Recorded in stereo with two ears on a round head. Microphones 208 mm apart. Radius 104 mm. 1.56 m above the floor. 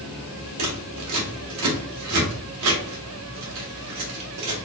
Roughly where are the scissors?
Right.